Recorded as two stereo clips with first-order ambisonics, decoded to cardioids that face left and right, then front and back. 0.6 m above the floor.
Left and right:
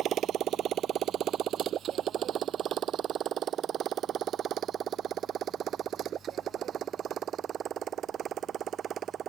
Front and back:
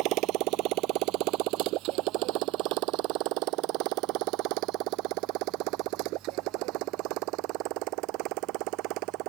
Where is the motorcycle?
145° right; by 9.3 s 150° right.